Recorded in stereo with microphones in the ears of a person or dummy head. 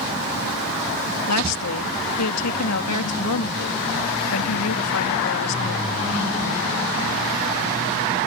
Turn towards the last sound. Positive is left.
turn(degrees=90)